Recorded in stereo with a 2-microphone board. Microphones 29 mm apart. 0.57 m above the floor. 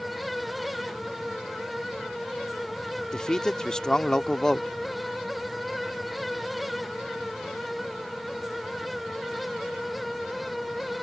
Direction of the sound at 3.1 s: 20° left (ahead or behind).